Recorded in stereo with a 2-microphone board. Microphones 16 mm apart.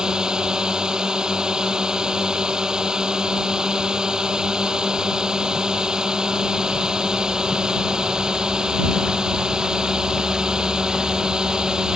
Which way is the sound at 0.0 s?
60° right (ahead or behind).